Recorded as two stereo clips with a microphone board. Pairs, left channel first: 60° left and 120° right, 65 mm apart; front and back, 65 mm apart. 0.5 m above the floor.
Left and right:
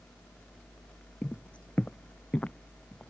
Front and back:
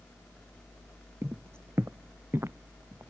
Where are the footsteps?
130° left.